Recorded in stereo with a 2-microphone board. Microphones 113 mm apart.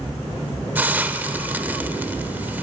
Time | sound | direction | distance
0.8 | a hiss | 15° right (ahead or behind) | 0.7 m